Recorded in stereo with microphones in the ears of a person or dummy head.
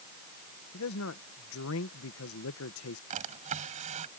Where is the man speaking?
70° left (ahead or behind).